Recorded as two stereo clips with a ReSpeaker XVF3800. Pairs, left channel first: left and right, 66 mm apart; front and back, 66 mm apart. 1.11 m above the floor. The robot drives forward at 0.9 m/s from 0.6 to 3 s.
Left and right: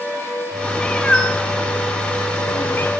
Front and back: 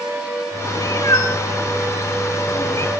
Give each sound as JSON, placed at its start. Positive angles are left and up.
{"t": 0.8, "sound": "a cat meowing", "azimuth_deg": 15, "distance_m": 3.0}